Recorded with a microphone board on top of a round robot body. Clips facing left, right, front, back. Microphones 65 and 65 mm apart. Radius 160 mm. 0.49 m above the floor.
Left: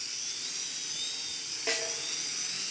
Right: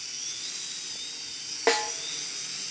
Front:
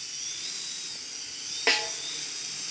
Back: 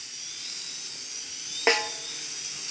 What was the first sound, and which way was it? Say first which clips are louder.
A snare drum: right 10 dB, back 4 dB; 115° right.